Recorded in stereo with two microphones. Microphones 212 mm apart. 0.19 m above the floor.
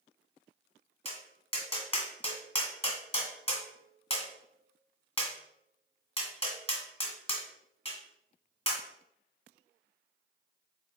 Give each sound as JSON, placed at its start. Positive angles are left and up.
{"t": 1.1, "sound": "tapping", "side_deg": 25, "distance_m": 1.6}